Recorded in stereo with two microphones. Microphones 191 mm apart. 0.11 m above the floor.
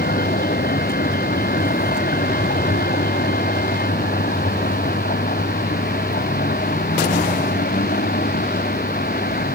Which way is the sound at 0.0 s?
50° left (ahead or behind).